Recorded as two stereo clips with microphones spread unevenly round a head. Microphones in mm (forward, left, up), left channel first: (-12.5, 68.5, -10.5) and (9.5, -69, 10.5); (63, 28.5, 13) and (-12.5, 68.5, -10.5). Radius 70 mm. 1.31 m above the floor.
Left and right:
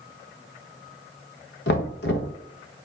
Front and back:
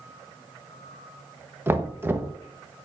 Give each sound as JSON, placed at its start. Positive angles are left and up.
{"t": 1.7, "sound": "knocking", "azimuth_deg": 85, "distance_m": 0.9}